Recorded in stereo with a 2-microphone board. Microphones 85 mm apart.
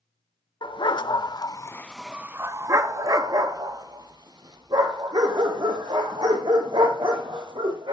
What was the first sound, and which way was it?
A dog barking, 70° left (ahead or behind).